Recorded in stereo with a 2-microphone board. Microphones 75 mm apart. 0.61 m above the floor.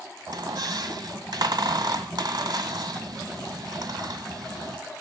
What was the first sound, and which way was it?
A squeak, 75° right (ahead or behind).